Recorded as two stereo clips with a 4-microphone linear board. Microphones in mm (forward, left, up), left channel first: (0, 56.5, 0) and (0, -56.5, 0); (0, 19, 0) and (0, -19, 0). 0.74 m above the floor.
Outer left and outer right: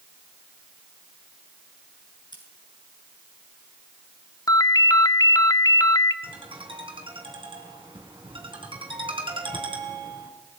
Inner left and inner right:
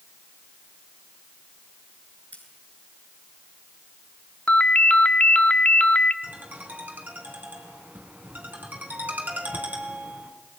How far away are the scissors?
About 6 m.